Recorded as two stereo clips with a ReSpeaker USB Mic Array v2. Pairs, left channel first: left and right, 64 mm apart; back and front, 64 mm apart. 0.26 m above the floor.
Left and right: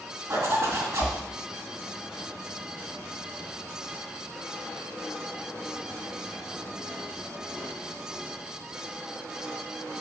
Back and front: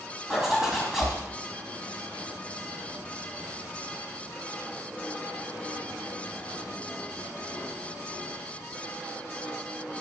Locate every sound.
0.3 s a zipper: 80° right, 2.5 m